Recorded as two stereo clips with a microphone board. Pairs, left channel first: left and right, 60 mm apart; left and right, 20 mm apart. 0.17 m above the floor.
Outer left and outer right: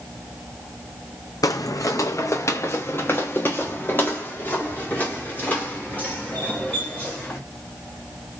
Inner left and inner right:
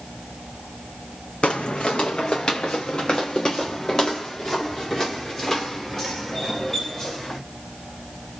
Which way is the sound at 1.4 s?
75° left (ahead or behind).